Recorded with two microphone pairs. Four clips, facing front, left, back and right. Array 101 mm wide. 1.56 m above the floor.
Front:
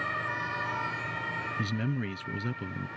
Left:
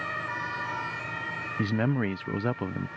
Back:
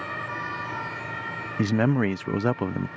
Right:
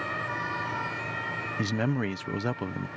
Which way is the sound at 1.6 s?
175° left.